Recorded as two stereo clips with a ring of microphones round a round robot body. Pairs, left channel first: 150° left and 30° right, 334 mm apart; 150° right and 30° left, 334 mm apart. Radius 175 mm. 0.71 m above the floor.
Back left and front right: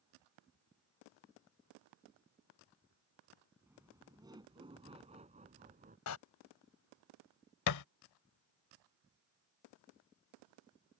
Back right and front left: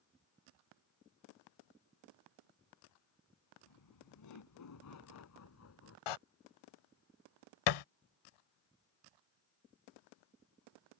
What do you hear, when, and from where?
3.7 s laughter: 115° right; by 6.0 s 100° right
6.1 s a door slam: 160° right
7.7 s a thud: 170° right